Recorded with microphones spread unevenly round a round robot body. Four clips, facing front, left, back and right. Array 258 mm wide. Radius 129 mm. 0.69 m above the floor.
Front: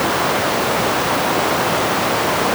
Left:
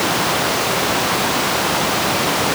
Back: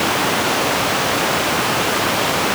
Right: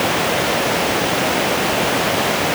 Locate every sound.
Only background noise.